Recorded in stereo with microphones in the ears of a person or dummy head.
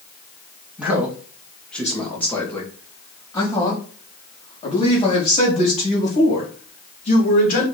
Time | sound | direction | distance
0.8 | a man speaking | 10° right (ahead or behind) | 2.5 m